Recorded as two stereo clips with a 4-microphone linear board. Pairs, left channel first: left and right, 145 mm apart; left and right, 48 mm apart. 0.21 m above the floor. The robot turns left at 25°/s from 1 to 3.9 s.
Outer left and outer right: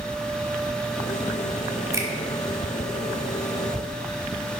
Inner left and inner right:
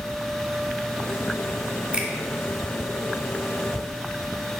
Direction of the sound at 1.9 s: 25° right (ahead or behind).